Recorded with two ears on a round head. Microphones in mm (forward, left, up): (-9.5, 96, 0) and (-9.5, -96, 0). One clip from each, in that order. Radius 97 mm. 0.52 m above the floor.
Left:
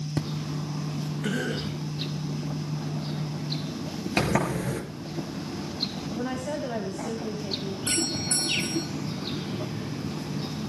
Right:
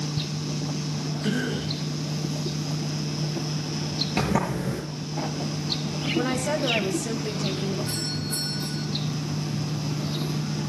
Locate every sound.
1.2 s a cough: 10° left (ahead or behind), 2 m
4.2 s a sliding door: 35° left (ahead or behind), 4.5 m
6.2 s a woman speaking: 55° right (ahead or behind), 3.5 m
7.9 s a doorbell: 75° left (ahead or behind), 8.5 m